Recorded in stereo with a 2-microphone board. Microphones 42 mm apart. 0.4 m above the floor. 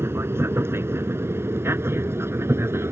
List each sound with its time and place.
0.0 s an aircraft: 70° right (ahead or behind); by 2.9 s 75° right (ahead or behind)